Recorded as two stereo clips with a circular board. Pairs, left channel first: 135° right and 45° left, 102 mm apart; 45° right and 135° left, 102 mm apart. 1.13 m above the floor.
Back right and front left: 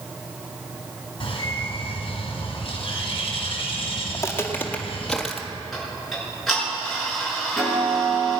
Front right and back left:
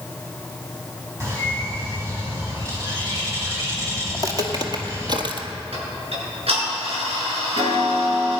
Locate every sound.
1.2 s a bird: 165° right, 4 m
4.1 s footsteps: 175° left, 1.5 m; by 5.5 s 135° left, 1.7 m
5.7 s ticking: 135° left, 6.5 m